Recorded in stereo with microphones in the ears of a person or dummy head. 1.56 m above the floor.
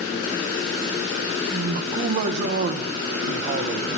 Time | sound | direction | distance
1.5 | a man speaking | 45° right (ahead or behind) | 1.1 m